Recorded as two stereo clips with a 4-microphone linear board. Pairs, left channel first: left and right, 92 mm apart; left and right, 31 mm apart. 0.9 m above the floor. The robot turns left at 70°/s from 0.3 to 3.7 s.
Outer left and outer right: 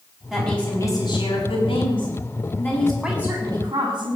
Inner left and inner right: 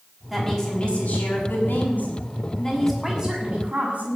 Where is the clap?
No clap in this recording.